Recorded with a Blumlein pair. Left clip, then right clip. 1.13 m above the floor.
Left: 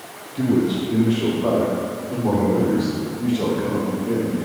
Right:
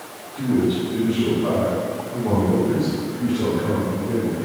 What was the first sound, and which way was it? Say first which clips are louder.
A man speaking: left 1 dB; 60° left.